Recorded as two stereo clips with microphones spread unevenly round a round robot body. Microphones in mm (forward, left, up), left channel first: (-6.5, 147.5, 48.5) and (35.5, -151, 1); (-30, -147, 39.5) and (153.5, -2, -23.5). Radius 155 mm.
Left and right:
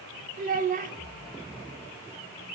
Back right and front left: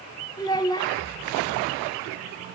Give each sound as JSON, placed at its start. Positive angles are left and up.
{"t": 0.4, "sound": "a child speaking", "azimuth_deg": -55, "distance_m": 0.5}